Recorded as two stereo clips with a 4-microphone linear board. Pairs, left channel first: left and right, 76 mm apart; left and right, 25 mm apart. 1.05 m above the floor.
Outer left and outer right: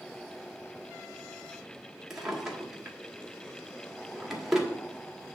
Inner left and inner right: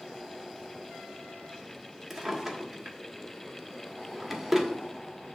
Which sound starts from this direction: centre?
A drawer, at 2.1 s.